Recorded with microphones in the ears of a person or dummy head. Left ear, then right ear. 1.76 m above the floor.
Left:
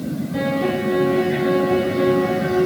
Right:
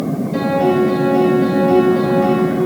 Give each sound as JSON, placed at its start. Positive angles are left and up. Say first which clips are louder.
{"t": 0.3, "sound": "a piano", "louder": "right 6 dB", "side_deg": -30, "distance_m": 2.5}